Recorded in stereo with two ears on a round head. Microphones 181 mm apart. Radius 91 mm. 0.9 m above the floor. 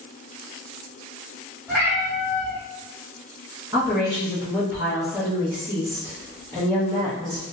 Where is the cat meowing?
Centre (ahead or behind), 1.4 m.